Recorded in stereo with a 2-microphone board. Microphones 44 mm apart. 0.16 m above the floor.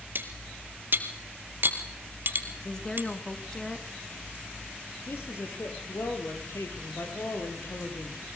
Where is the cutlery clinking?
50° right (ahead or behind), 2.5 m.